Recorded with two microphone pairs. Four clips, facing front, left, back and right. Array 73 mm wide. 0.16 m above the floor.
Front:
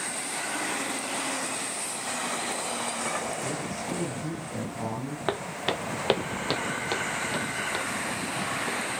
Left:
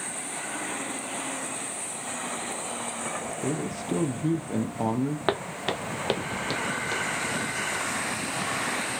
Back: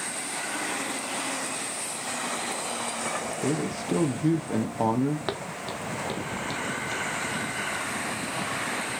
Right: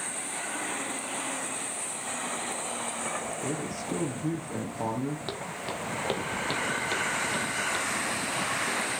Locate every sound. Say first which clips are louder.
3.4 s a man speaking: left 3 dB, back 4 dB; 160° left, 3.5 m
5.3 s footsteps: left 7 dB, front 3 dB; 80° left, 0.9 m; by 8.8 s 15° right, 4.5 m